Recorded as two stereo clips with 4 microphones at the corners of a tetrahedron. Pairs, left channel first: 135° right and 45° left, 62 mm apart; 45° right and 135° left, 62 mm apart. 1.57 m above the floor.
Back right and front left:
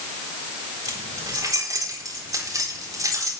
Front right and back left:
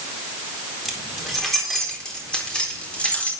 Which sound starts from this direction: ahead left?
Keys jangling, at 0.8 s.